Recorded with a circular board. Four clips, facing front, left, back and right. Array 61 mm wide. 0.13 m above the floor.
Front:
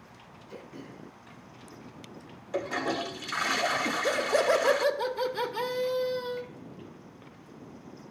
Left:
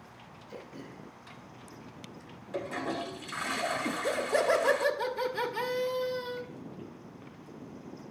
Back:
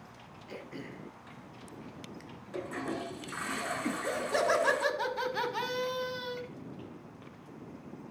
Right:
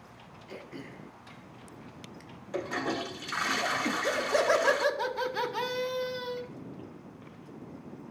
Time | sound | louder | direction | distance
0.5 | throat clearing | right 2 dB, back 1 dB | 140° right | 1.3 m
2.5 | a toilet flushing | right 2 dB, front 6 dB | 35° right | 0.8 m
3.9 | laughter | right 1 dB, front 5 dB | 140° right | 1.2 m